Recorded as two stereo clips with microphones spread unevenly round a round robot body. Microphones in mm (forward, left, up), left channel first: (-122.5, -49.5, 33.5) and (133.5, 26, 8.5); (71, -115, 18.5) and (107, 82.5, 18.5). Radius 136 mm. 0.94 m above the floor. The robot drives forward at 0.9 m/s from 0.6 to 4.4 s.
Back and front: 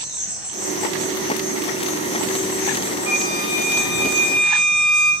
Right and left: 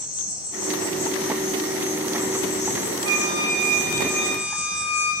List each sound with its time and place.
0.0 s an insect: 70° right, 5 m; by 5.2 s 115° right, 5 m
3.1 s a flute: 100° left, 2.5 m; by 5.1 s 125° left, 3 m